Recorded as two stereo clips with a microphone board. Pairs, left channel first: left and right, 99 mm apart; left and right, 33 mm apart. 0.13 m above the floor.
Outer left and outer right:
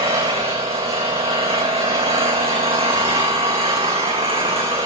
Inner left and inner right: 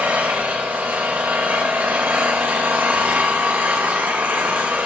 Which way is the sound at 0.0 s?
85° right.